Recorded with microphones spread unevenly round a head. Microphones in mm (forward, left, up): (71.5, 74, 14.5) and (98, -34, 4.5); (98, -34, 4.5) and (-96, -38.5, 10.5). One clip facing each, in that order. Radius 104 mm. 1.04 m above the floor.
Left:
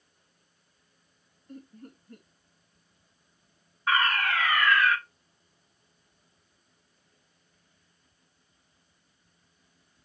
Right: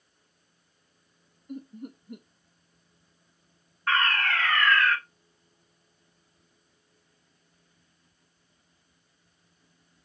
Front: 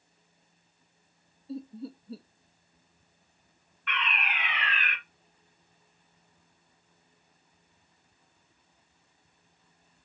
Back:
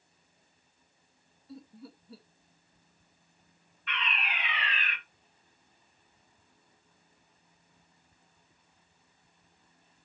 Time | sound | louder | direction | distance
1.5 | laughter | right 7 dB, front 10 dB | 25° right | 0.8 m
3.9 | a fire alarm | even, front 3 dB | 20° left | 1.8 m